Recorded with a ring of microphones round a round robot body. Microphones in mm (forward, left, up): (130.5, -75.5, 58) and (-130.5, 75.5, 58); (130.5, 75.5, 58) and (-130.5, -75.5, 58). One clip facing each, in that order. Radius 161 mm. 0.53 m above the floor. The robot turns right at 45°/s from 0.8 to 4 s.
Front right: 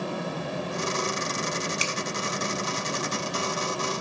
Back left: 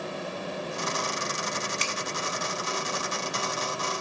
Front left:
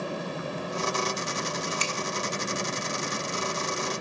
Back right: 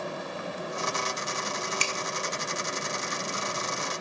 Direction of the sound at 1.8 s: 110° right.